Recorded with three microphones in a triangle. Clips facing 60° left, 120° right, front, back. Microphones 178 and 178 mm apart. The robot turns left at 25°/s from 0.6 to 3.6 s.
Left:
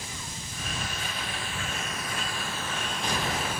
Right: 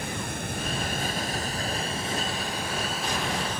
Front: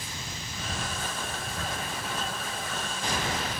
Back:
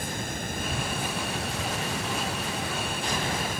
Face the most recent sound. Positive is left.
turn(degrees=140)